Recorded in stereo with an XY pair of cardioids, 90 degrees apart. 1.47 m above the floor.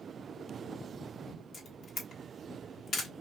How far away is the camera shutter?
About 1.1 m.